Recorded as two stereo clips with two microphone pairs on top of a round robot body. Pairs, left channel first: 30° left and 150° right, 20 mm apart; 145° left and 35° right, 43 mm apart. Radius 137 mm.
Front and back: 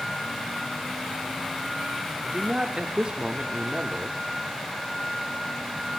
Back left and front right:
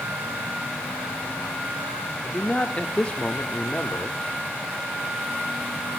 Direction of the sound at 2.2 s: 170° left.